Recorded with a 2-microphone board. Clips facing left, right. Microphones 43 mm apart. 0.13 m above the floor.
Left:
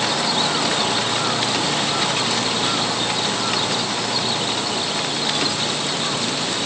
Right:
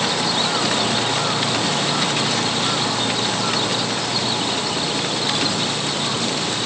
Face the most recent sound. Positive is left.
No sound to turn to.